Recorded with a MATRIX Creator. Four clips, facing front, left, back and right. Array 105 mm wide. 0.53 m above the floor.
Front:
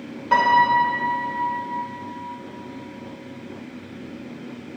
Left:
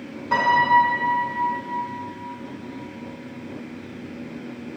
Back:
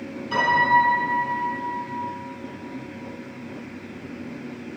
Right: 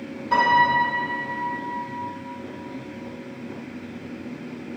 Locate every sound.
0.3 s a piano: 15° left, 1.7 m